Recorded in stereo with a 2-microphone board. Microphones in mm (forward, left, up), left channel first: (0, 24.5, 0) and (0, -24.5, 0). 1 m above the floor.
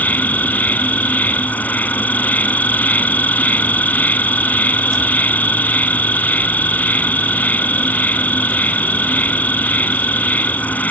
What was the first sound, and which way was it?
An insect, 35° left (ahead or behind).